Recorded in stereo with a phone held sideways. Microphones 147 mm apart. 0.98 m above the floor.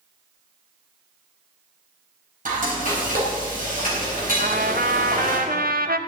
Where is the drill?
No drill in this recording.